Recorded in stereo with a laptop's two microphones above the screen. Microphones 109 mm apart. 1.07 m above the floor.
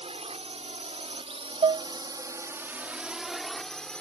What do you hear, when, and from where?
0.0 s a drone: 70° right (ahead or behind); by 4.0 s 10° left (ahead or behind)
1.6 s dishes clattering: 60° right (ahead or behind)